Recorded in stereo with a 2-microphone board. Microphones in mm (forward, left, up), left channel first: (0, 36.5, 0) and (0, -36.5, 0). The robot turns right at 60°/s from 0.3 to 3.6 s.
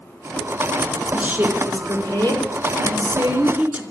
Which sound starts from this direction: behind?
A woman speaking, at 1.1 s.